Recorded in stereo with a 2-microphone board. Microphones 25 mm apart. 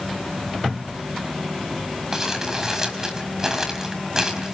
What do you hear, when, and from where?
2.1 s crumpling: 20° right (ahead or behind), 4.5 m